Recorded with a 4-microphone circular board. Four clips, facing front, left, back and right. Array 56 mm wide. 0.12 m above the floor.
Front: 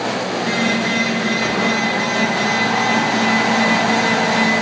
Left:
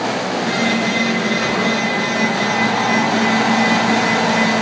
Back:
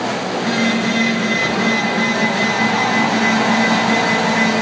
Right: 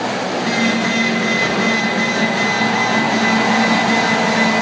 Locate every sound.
0.3 s a phone buzzing: 150° right, 3.5 m